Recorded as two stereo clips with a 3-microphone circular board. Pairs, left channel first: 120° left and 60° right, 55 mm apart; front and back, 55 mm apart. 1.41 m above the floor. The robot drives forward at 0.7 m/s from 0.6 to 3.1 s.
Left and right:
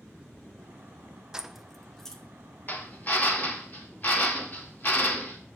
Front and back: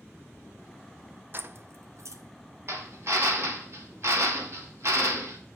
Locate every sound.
1.3 s keys jangling: 135° right, 0.5 m; by 2.2 s 160° right, 1.0 m
2.7 s a drill: 160° left, 1.5 m; by 5.4 s 165° left, 1.7 m